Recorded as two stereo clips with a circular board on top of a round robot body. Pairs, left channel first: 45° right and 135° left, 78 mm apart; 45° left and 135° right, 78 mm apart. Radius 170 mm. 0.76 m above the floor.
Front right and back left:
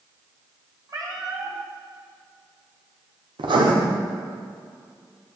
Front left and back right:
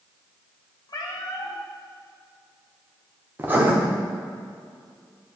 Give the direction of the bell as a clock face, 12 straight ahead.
No bell in this recording.